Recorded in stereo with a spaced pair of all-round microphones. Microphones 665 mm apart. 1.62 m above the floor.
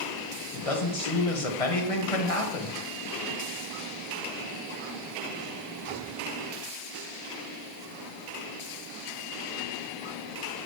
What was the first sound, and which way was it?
A man speaking, 55° left (ahead or behind).